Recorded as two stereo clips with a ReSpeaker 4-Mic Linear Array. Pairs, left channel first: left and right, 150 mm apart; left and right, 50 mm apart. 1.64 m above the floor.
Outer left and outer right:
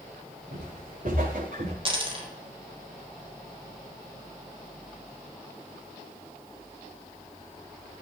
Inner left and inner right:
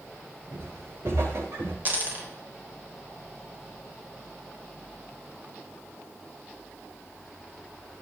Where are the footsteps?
65° right (ahead or behind), 9 m.